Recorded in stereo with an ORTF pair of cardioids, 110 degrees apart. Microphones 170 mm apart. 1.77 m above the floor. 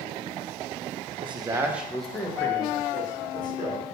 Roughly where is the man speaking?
Ahead right.